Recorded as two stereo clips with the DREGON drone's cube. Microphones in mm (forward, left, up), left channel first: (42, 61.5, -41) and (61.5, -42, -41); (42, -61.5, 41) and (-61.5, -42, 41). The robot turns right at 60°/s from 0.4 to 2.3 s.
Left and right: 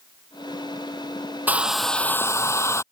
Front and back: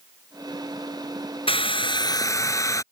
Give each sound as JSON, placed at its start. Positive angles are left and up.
{"t": 1.5, "sound": "a hair dryer", "azimuth_deg": -10}